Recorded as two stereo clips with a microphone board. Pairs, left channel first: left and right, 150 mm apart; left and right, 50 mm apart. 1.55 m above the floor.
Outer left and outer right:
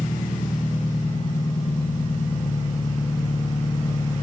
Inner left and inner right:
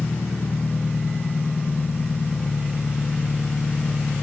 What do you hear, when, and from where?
0.0 s an engine running: 70° left (ahead or behind), 2 m